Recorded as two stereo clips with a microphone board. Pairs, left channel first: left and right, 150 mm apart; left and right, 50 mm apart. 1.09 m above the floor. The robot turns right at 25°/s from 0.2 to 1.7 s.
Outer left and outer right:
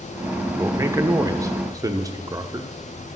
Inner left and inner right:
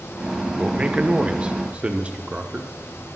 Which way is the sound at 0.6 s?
15° right (ahead or behind).